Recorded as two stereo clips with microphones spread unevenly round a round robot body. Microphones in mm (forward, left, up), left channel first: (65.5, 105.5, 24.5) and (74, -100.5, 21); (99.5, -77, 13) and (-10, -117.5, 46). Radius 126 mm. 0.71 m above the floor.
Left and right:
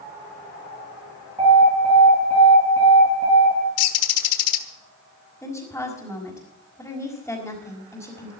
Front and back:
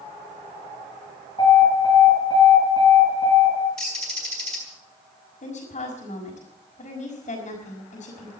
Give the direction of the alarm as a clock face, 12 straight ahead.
1 o'clock.